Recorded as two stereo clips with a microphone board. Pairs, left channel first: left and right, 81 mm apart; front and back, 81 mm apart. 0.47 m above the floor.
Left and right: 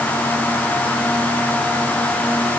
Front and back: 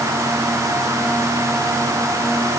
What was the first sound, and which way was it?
Only background noise.